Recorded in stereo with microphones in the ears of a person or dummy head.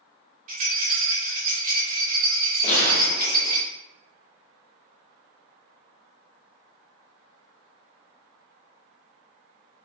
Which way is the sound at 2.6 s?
40° left (ahead or behind).